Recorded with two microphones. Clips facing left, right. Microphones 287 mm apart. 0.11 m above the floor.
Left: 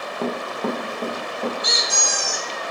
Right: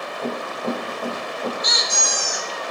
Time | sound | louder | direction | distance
0.2 | running footsteps | left 2 dB | 80° left | 1.3 m
1.6 | a squeak | left 1 dB | 35° left (ahead or behind) | 1.0 m